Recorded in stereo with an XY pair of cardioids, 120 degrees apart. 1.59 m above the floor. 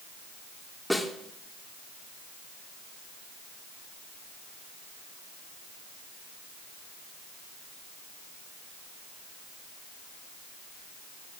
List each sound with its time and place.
0.9 s a snare drum: 5° left, 2 m